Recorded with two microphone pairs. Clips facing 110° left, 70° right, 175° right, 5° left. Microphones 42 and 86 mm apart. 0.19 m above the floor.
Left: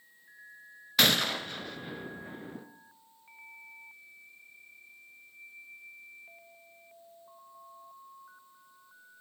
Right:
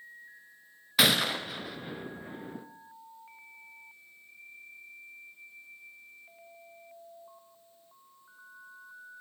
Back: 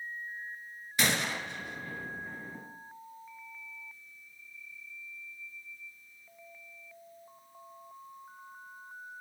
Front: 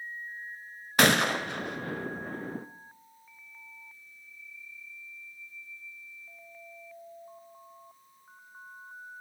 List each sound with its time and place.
1.0 s a gunshot: 15° left, 0.7 m